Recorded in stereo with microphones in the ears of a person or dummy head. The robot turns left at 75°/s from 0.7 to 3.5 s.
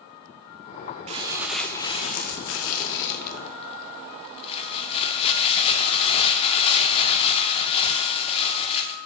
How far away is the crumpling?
About 0.5 m.